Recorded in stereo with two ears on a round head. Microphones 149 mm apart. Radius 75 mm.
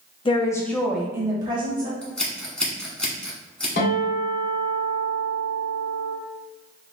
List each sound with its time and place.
0.2 s a woman speaking: 30° left (ahead or behind), 0.5 m; by 1.9 s 30° right (ahead or behind), 1.0 m
2.0 s scissors: 5° left (ahead or behind), 1.0 m
3.8 s a guitar: 65° left (ahead or behind), 1.9 m